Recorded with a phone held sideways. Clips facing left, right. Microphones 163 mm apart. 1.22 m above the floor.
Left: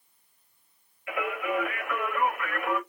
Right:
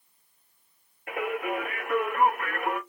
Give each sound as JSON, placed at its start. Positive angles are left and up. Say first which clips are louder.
{"t": 1.1, "sound": "singing", "louder": "even", "side_deg": -45, "distance_m": 3.5}